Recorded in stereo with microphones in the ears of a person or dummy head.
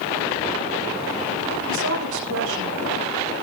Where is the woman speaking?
75° right (ahead or behind), 5 m.